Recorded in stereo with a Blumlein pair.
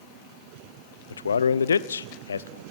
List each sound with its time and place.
1.1 s a man speaking: 70° left, 0.9 m